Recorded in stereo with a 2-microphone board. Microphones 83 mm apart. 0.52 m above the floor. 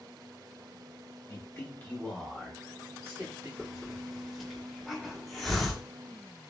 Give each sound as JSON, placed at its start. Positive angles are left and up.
{"t": 1.3, "sound": "a man speaking", "side_deg": 35, "distance_m": 1.3}
{"t": 3.6, "sound": "a hiss", "side_deg": 0, "distance_m": 1.8}